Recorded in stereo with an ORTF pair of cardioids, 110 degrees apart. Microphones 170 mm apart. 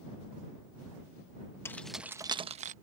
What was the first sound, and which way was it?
Keys jangling, 15° left.